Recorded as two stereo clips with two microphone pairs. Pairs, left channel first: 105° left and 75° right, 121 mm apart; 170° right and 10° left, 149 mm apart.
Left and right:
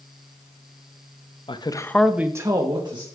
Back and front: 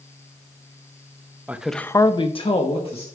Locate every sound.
1.5 s a man speaking: 90° left, 0.8 m; by 3.0 s 125° right, 1.5 m